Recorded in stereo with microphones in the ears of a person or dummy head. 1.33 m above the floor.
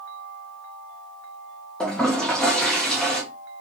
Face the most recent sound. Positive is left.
turn(degrees=5)  # may be behind; listen again after turning